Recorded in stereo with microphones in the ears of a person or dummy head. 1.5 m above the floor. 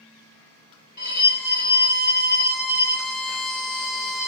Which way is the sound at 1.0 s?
50° left (ahead or behind).